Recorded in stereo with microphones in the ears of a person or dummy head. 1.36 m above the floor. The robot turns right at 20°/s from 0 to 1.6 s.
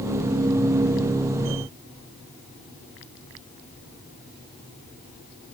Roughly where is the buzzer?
I don't hear a buzzer.